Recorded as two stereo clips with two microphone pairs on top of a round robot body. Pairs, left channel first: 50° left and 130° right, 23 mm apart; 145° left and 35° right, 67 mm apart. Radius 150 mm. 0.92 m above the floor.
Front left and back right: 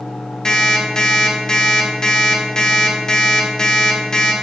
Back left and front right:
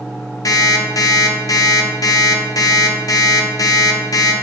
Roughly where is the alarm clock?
Left.